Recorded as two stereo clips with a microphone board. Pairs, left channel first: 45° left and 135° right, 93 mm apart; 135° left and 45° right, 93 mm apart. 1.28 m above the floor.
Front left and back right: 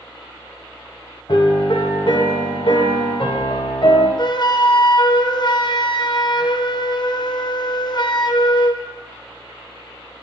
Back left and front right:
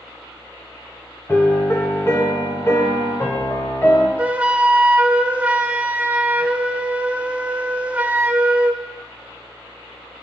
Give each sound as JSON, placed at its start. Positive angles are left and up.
{"t": 1.3, "sound": "a piano", "azimuth_deg": 75, "distance_m": 1.6}
{"t": 4.2, "sound": "a flute", "azimuth_deg": 25, "distance_m": 0.5}